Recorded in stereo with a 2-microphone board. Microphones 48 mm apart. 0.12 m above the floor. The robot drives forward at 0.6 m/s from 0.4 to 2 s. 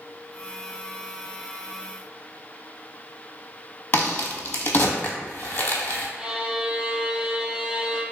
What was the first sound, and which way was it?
A crack, 45° left (ahead or behind).